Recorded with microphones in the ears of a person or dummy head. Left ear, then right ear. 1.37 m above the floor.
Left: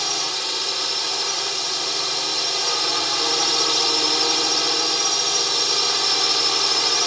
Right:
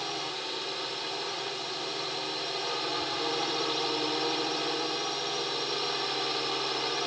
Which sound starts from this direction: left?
A drone, at 0.0 s.